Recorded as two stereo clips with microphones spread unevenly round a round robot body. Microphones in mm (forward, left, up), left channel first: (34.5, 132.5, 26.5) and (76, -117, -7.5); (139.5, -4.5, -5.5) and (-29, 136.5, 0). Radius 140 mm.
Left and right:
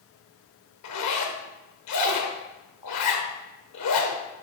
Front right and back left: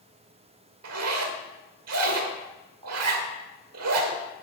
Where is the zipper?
140° left, 1.4 m.